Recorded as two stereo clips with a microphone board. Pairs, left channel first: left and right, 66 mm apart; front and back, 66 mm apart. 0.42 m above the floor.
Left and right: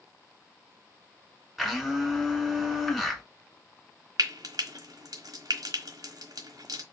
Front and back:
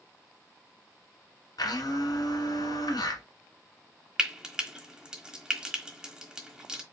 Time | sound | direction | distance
1.6 | a blender | straight ahead | 1.7 m
4.2 | frying | 100° right | 1.1 m